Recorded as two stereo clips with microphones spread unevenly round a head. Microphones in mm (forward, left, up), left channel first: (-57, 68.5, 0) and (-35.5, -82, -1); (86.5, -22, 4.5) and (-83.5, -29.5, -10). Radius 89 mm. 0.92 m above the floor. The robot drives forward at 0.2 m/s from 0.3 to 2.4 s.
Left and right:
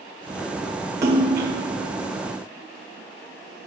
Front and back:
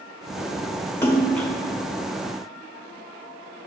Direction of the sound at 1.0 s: 40° right.